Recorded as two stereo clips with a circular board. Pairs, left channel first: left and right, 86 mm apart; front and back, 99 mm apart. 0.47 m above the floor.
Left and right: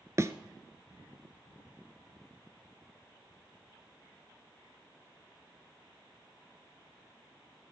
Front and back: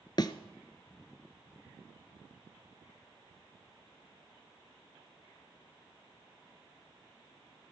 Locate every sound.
0.2 s a thud: 40° right, 0.9 m